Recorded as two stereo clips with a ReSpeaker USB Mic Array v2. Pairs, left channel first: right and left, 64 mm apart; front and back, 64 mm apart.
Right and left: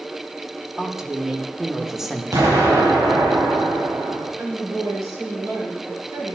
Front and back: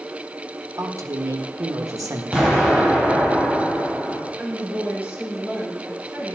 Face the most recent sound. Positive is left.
turn(degrees=120)